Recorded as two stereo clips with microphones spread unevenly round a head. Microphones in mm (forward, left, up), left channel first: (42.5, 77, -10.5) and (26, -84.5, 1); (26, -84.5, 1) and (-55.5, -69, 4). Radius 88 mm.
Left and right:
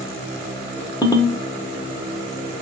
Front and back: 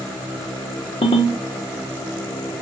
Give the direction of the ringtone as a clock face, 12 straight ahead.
11 o'clock.